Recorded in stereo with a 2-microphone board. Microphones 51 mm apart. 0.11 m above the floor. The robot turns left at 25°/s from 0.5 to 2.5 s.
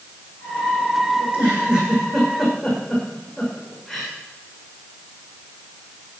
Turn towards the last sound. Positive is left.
turn(degrees=-5)  # may be behind; listen again after turning